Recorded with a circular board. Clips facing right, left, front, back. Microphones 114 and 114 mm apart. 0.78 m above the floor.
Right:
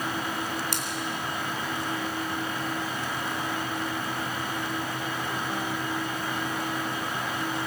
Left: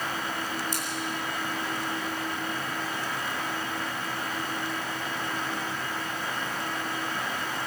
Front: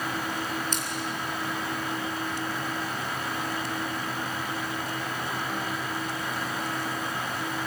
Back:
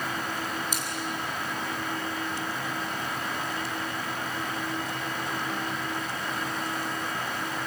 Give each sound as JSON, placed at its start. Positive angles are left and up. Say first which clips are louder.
{"t": 0.7, "sound": "scissors", "louder": "right 1 dB, front 1 dB", "azimuth_deg": -100, "distance_m": 4.0}